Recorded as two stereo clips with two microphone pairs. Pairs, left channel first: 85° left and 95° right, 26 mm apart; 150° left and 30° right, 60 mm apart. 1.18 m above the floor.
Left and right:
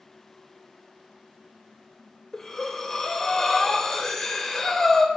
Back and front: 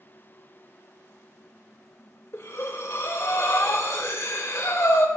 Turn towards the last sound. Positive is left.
turn(degrees=145)